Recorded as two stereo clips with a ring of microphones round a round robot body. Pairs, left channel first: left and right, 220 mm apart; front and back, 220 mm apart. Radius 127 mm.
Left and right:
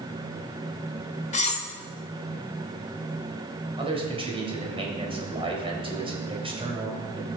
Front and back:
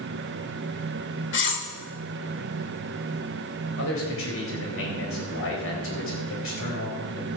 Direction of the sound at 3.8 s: 25° right.